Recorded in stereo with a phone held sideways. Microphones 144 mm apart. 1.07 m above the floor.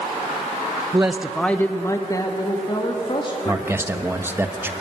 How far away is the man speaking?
About 0.9 m.